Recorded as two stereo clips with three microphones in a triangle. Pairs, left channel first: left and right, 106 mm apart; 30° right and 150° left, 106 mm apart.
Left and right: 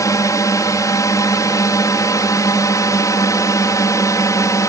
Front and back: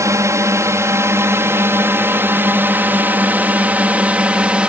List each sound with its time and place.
0.0 s a drone: 115° left; by 4.7 s 80° left